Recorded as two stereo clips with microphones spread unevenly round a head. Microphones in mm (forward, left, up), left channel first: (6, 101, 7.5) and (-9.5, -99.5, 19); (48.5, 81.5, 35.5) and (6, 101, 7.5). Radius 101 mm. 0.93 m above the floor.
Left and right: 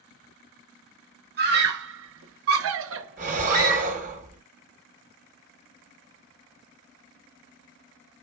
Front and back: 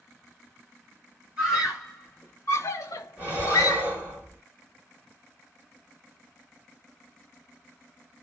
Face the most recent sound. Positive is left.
turn(degrees=-95)